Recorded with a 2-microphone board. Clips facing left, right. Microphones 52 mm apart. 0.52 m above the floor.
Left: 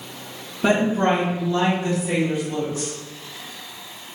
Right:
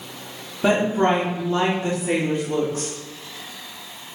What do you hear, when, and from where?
0.6 s a woman speaking: 10° right (ahead or behind), 1.2 m; by 2.9 s 45° right (ahead or behind), 1.6 m